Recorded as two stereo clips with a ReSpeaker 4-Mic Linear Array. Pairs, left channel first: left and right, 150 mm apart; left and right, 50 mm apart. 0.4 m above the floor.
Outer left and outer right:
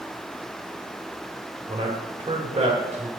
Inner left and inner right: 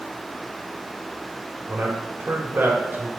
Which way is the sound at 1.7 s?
35° right (ahead or behind).